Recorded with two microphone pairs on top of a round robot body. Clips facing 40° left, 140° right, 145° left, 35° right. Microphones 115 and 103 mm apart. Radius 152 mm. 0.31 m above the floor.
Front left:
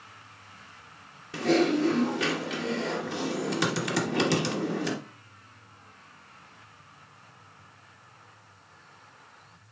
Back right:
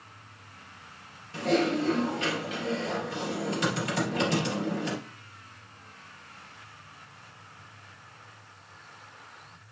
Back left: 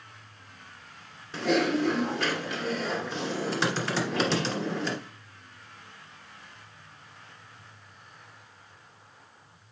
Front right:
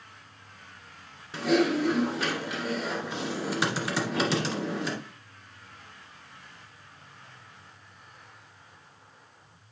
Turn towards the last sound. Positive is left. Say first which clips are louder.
# front left 2 dB, front right 1 dB
turn(degrees=45)